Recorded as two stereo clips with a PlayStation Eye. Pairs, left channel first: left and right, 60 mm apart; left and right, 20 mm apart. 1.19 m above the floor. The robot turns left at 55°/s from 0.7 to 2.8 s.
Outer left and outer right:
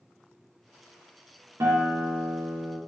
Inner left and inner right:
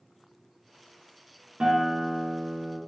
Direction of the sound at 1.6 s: 55° right.